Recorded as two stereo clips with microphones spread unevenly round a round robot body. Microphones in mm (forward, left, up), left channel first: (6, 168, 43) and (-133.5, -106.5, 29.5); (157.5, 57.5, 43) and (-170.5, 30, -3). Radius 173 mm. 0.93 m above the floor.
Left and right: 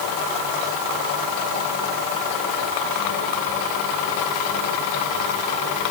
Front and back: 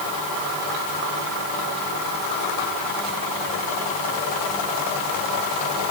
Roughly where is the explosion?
No explosion in this recording.